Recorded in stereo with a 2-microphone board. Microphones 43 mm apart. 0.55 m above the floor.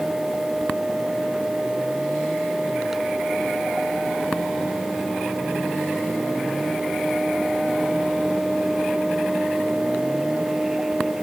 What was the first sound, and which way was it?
Only background noise.